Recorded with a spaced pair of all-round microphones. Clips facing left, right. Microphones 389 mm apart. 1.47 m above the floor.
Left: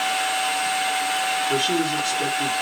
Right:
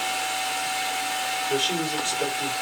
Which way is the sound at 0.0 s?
75° left (ahead or behind).